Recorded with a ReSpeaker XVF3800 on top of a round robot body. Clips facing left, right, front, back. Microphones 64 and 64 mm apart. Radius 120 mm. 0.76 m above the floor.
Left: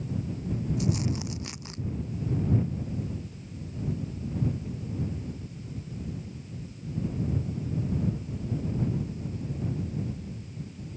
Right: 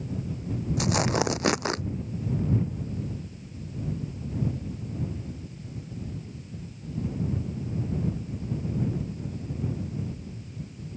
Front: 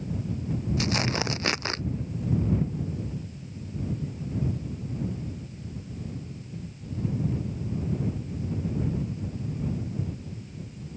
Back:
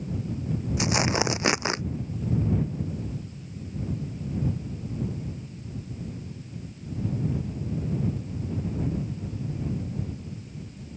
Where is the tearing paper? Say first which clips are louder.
Right 8 dB, back 4 dB; 110° right.